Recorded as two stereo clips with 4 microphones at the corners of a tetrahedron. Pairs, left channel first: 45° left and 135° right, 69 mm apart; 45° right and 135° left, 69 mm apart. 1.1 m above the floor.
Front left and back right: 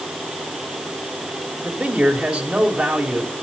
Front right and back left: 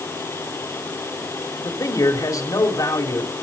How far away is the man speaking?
About 3 m.